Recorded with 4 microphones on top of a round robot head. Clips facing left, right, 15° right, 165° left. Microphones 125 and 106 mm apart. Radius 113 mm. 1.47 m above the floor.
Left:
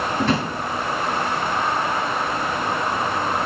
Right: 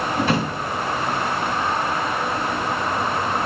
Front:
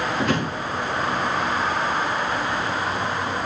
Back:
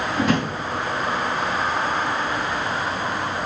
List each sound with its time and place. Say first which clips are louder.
0.2 s a drawer: even, back 4 dB; 170° right, 3.5 m